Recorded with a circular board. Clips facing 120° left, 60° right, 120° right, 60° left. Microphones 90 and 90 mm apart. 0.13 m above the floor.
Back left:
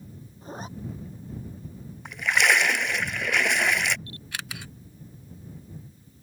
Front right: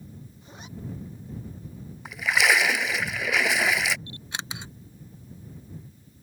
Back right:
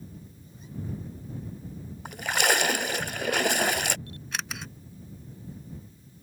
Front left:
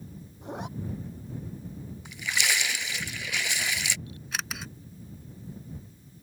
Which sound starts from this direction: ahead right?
A camera shutter, at 4.1 s.